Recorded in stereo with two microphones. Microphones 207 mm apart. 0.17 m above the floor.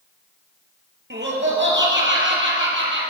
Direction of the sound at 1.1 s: 65° right (ahead or behind).